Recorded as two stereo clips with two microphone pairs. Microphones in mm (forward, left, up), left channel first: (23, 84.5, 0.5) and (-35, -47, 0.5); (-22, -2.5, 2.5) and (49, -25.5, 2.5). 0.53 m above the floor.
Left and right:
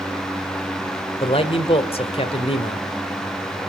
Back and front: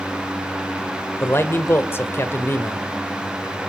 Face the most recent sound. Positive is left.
turn(degrees=110)